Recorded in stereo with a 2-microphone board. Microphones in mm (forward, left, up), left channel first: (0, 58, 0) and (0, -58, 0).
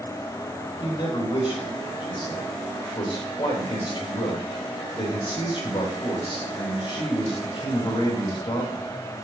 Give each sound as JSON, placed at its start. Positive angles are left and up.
{"t": 0.8, "sound": "a man speaking", "side_deg": 45, "distance_m": 3.5}